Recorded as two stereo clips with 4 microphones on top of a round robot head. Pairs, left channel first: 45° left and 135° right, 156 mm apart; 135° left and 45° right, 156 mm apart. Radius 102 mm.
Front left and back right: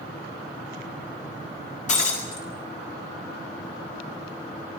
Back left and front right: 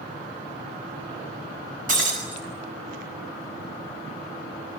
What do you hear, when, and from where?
1.9 s breaking glass: 5° right, 8 m